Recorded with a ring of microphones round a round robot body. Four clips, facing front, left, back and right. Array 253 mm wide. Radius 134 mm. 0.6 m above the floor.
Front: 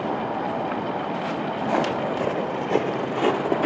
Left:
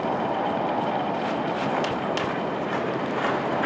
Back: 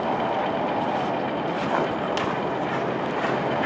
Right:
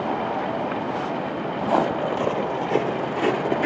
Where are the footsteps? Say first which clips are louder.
Right 4 dB, front 4 dB; 60° right, 2.5 m; by 3.7 s 30° right, 3 m.